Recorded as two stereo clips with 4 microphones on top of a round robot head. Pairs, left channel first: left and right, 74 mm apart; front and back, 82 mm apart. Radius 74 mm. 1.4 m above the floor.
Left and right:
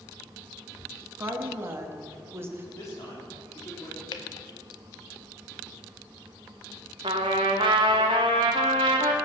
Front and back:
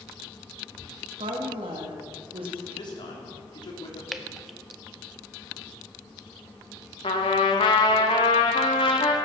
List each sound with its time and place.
1.2 s a woman speaking: 145° right, 2.0 m
2.8 s a man speaking: 30° left, 3.5 m
4.1 s dripping: 90° left, 0.6 m
7.0 s a trumpet: 45° right, 1.2 m